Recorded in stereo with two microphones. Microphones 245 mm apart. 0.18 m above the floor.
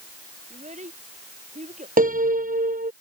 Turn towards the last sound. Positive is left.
turn(degrees=-35)  # may be behind; listen again after turning